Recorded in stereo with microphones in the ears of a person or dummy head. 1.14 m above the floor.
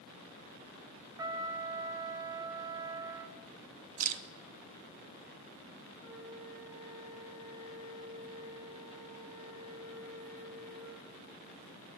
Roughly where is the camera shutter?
Right.